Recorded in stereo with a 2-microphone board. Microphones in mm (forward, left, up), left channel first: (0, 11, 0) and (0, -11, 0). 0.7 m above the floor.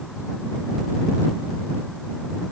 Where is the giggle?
No giggle in this recording.